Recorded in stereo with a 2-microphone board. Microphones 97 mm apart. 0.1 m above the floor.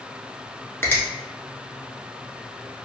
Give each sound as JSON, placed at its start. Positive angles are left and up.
{"t": 0.8, "sound": "a finger snap", "side_deg": 25, "distance_m": 0.9}